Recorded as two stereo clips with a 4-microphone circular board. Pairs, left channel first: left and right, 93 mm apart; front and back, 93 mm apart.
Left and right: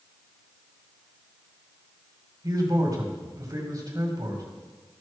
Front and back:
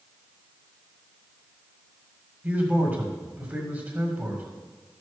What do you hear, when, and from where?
2.4 s a man speaking: 115° right, 2.0 m